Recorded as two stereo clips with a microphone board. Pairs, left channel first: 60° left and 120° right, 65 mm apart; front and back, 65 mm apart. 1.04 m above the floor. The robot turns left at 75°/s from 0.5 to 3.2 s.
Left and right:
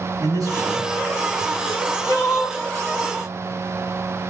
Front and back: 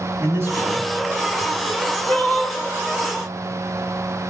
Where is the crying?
110° left, 1.7 m; by 2.6 s 40° left, 1.7 m.